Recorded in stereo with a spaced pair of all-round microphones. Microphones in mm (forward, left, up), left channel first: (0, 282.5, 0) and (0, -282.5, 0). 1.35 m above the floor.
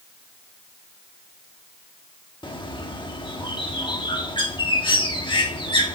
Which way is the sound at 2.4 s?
10° left (ahead or behind).